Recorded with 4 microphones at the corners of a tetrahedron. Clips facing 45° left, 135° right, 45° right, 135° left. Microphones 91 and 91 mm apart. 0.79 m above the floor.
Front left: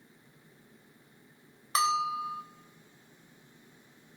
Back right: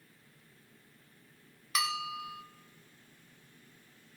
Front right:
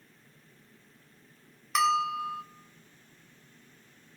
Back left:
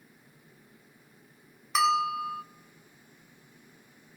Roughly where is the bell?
Ahead left.